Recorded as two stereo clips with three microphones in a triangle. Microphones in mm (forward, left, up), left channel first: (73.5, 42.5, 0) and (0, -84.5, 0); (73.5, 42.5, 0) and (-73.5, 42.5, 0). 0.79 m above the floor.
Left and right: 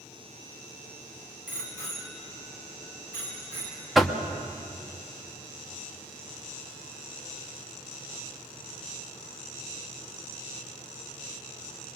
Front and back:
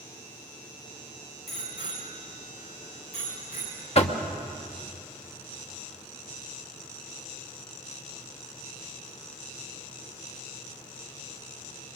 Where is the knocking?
30° right, 1.1 m.